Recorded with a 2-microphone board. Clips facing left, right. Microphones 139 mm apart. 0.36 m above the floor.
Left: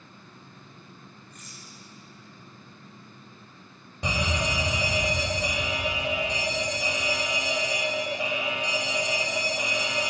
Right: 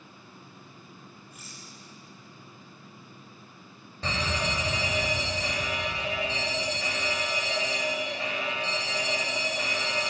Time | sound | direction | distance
1.3 | a rattle | 10° right (ahead or behind) | 7 m
4.0 | a fire alarm | 15° left (ahead or behind) | 3 m